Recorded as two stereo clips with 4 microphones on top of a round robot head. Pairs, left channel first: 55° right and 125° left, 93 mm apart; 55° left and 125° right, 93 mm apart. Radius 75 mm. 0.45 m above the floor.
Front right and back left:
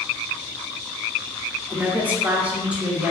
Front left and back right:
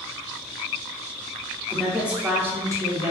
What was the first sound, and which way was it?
A woman speaking, 130° left.